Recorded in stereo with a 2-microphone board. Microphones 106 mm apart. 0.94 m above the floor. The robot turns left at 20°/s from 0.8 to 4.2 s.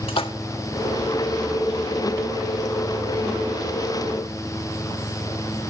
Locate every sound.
0.1 s a splash: 60° left (ahead or behind), 1.3 m